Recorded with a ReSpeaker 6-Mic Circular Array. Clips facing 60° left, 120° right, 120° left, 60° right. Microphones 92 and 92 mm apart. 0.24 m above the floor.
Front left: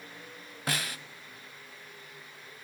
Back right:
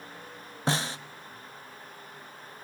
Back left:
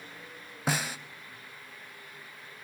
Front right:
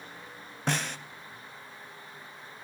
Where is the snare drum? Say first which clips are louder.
Back right 5 dB, even; 160° right, 1.0 m.